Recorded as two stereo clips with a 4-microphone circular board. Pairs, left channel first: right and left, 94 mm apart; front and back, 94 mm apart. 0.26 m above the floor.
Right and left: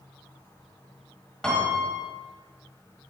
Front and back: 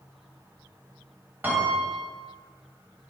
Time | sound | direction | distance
1.4 | a piano | 160° right | 1.6 m